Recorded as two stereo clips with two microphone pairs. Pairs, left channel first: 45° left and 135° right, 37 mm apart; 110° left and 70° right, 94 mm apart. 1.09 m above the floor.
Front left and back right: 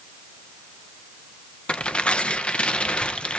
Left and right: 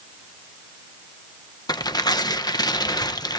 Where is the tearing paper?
95° left, 0.9 m.